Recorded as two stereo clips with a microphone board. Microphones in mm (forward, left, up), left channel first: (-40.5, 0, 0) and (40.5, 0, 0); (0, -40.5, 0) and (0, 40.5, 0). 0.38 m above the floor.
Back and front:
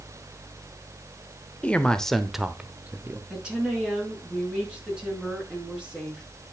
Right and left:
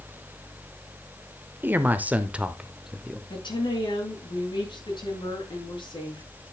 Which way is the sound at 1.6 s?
120° left.